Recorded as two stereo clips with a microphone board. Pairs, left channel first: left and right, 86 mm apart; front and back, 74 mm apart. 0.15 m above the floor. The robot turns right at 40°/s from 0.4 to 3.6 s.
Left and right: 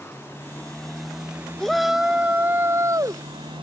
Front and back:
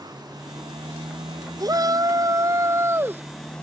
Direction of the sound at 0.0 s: 155° left.